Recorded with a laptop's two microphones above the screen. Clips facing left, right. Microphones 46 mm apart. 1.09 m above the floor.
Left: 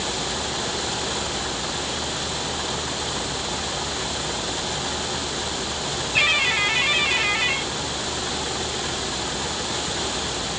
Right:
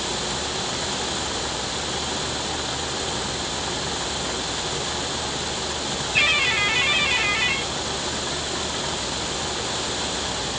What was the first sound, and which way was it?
Only background noise.